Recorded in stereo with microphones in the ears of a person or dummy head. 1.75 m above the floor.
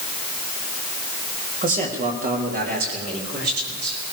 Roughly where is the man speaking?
Right.